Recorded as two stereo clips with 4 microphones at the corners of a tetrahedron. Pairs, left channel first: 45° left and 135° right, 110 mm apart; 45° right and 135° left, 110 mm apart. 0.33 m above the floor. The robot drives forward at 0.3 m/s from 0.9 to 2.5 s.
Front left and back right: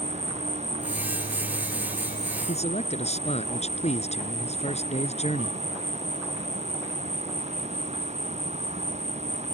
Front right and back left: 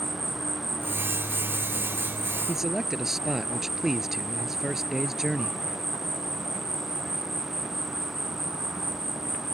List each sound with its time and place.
0.0 s an insect: 140° right
2.5 s a man speaking: 50° left